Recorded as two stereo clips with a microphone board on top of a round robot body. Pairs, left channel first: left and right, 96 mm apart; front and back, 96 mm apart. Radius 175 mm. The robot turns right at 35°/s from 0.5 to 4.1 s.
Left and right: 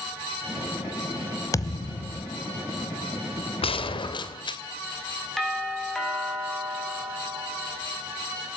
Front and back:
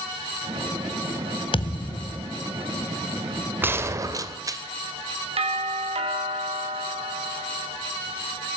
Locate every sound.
1.5 s a thud: 30° left, 1.4 m; by 2.3 s 60° left, 1.4 m
3.6 s a gunshot: 110° left, 2.5 m; by 4.6 s 125° left, 2.5 m
5.4 s a doorbell: straight behind, 7 m